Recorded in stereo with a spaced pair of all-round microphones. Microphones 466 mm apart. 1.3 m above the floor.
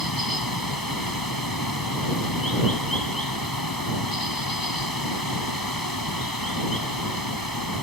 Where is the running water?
45° left (ahead or behind).